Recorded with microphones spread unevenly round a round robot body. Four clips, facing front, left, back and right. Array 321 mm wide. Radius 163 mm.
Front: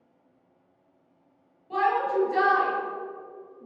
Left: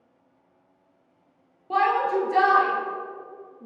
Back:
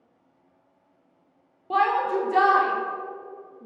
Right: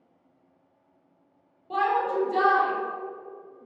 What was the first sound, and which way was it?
A shout, 155° left.